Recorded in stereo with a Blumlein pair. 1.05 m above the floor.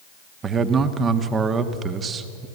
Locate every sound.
0.4 s a man speaking: 20° right, 1.4 m